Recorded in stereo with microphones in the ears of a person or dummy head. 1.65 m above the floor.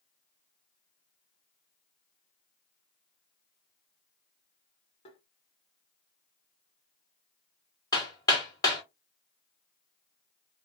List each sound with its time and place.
5.0 s tapping: 40° left (ahead or behind), 1.1 m
7.9 s hammering: 25° left (ahead or behind), 1.5 m